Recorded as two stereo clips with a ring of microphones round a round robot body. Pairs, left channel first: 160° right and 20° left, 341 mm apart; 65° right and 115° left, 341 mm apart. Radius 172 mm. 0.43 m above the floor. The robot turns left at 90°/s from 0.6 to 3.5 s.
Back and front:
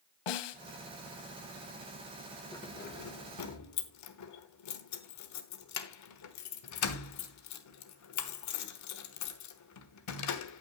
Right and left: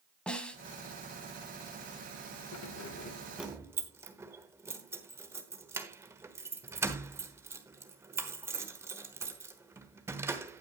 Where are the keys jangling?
80° right, 1.2 m; by 10.6 s 165° right, 1.2 m.